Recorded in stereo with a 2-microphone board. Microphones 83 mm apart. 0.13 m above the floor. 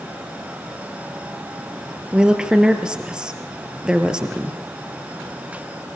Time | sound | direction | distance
2.1 | a woman speaking | 10° right (ahead or behind) | 3.5 m